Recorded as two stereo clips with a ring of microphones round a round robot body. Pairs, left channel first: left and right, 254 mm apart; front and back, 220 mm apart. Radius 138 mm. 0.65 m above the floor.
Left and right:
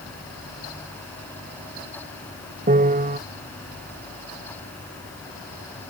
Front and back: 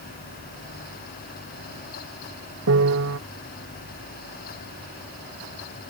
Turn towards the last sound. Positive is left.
turn(degrees=-150)